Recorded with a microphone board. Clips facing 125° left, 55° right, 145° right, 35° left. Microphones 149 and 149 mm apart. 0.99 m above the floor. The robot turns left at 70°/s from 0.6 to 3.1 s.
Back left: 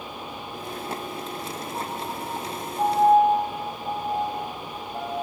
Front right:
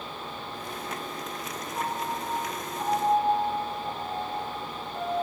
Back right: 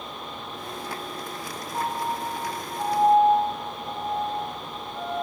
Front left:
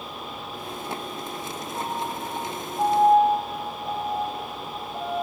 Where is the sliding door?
No sliding door in this recording.